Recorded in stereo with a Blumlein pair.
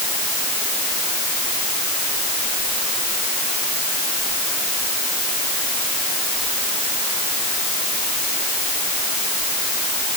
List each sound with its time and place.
Only background noise.